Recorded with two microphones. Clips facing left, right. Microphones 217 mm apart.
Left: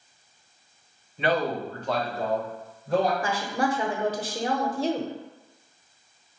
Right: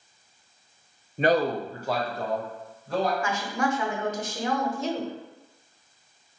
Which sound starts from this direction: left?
A woman speaking, at 3.2 s.